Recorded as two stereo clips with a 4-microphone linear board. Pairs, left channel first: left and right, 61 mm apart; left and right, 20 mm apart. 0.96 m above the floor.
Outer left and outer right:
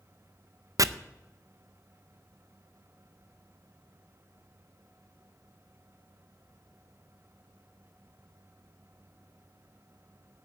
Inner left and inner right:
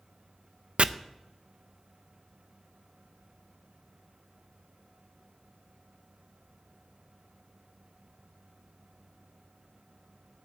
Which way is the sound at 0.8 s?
65° right (ahead or behind).